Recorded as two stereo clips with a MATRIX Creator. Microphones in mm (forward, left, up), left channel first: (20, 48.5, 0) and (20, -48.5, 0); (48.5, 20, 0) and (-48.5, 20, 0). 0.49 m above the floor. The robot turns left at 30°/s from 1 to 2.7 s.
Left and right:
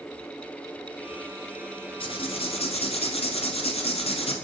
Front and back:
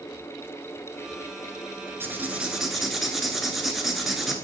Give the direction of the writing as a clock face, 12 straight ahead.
8 o'clock.